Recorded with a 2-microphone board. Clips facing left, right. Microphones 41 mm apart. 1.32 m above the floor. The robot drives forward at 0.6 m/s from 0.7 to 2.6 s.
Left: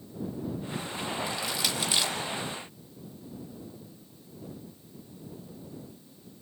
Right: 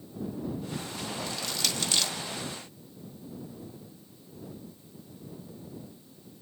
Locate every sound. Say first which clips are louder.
1.3 s crushing: left 2 dB; 15° left (ahead or behind), 2.5 m